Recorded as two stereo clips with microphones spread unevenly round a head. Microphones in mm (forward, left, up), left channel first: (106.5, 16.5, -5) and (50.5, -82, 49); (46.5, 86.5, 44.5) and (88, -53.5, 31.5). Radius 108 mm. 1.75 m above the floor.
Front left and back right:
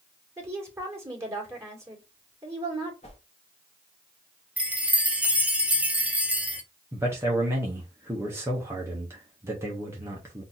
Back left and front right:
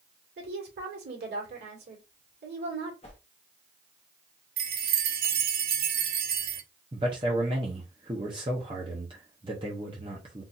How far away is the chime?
About 0.6 m.